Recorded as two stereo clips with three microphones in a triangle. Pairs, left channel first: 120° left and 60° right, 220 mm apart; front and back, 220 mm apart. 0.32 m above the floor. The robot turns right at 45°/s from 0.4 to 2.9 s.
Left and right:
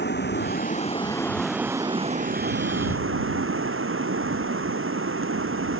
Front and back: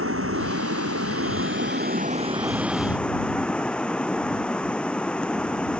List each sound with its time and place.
0.0 s running water: 160° left; by 5.8 s 85° right